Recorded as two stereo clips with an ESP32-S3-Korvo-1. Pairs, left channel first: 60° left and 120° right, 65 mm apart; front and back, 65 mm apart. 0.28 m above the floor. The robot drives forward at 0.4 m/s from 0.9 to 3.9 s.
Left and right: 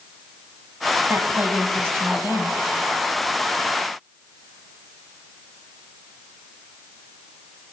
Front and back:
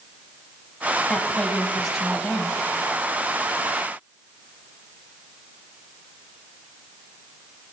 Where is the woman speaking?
75° right, 1.5 m; by 2.6 s 105° right, 1.5 m.